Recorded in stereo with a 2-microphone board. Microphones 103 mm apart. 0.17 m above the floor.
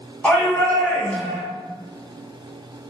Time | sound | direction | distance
0.2 | a shout | 15° left (ahead or behind) | 1.1 m